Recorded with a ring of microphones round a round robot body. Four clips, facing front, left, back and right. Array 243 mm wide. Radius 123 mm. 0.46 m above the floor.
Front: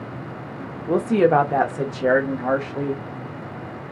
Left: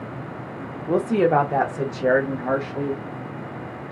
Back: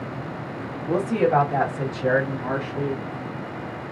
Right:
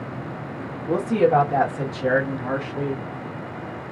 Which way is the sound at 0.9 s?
35° left.